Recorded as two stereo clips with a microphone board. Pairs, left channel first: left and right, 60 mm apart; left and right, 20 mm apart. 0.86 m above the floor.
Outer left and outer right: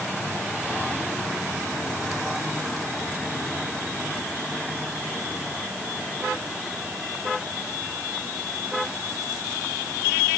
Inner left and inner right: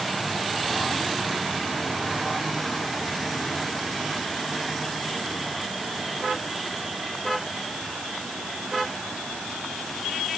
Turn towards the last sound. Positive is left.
No sound to turn to.